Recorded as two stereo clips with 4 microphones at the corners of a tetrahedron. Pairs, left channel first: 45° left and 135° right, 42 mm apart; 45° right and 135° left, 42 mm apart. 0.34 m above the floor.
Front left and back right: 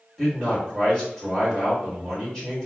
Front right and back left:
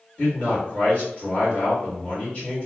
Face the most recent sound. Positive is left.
turn(degrees=-15)